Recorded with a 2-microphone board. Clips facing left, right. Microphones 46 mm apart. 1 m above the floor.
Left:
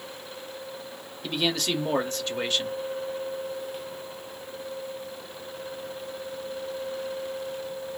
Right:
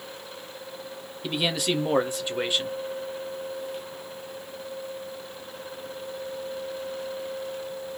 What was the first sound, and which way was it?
A man speaking, 10° right (ahead or behind).